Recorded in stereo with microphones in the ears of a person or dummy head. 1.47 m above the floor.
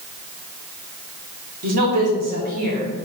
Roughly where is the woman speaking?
Right.